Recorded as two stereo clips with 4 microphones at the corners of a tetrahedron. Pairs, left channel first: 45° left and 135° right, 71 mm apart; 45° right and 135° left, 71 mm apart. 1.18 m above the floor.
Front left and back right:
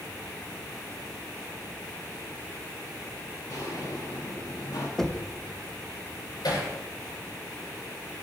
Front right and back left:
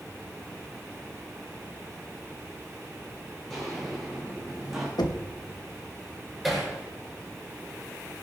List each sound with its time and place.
3.5 s footsteps: 40° left, 4.5 m; by 4.9 s 50° left, 5 m
5.0 s knocking: 40° right, 1.0 m
6.4 s hammering: 45° left, 6.5 m